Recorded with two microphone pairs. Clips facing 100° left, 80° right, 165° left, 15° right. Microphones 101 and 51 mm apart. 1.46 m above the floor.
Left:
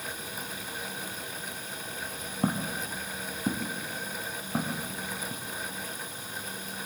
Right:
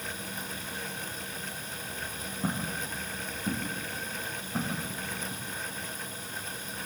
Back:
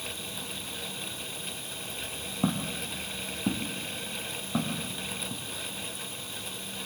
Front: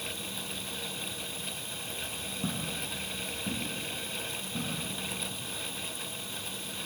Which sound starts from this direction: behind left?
Footsteps, at 2.4 s.